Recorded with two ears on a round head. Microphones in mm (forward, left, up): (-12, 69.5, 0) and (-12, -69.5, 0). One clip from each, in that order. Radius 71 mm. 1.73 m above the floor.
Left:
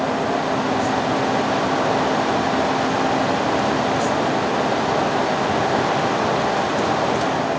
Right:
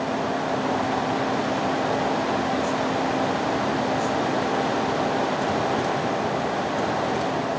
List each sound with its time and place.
Only background noise.